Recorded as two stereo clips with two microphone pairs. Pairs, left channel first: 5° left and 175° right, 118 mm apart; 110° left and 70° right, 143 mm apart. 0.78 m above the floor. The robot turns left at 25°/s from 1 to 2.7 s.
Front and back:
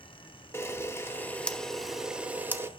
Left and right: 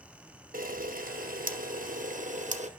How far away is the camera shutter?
About 0.7 m.